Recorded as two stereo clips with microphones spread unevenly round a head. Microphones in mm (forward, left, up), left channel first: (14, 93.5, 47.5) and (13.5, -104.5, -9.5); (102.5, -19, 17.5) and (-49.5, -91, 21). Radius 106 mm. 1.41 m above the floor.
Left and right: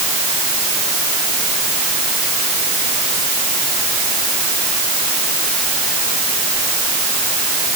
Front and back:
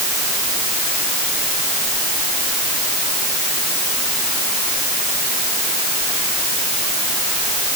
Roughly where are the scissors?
I don't hear scissors.